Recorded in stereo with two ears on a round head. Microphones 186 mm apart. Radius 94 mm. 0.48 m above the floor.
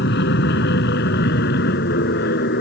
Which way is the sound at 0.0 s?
50° left (ahead or behind).